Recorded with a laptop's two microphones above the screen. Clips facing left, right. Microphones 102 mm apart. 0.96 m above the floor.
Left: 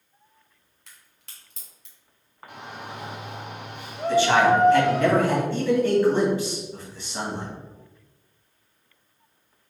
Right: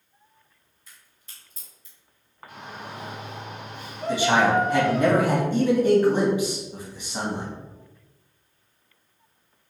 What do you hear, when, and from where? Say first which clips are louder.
0.9 s a crack: even; 75° left (ahead or behind), 1.6 m
2.5 s a shout: left 1 dB; 65° left (ahead or behind), 1.8 m
4.1 s a man speaking: left 2 dB; 15° right (ahead or behind), 1.5 m